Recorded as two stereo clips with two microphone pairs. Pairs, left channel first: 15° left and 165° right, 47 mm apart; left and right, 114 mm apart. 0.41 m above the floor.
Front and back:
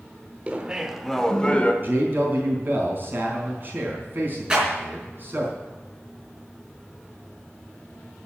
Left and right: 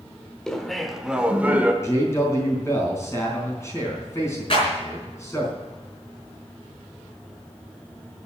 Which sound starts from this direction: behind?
Laughter, at 0.5 s.